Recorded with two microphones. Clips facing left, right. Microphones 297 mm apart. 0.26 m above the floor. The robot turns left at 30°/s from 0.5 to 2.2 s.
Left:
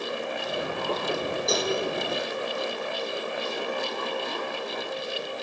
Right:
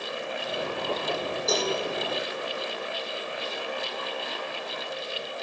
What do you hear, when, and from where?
1.5 s a cowbell: centre (ahead or behind), 1.6 m; by 1.7 s 10° left (ahead or behind), 1.6 m